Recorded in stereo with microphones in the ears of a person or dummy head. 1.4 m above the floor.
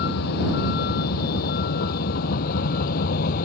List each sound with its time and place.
0.0 s a vehicle: 55° left (ahead or behind); by 3.5 s 45° left (ahead or behind)